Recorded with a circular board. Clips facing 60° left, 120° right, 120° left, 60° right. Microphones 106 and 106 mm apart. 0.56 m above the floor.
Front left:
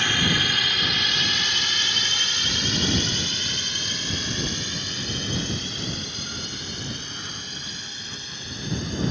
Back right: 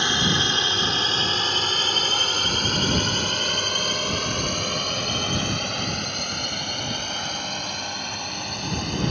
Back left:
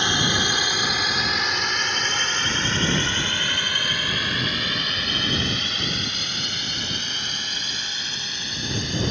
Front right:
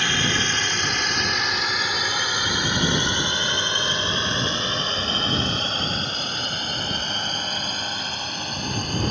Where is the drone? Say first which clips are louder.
Back right 1 dB, back left 1 dB; straight behind; by 9.1 s 100° right.